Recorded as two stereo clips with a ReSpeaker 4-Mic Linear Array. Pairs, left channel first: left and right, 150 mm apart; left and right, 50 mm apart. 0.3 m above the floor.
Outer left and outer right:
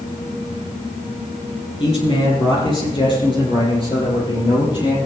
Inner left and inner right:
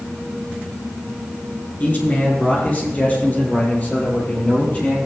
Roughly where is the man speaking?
Left.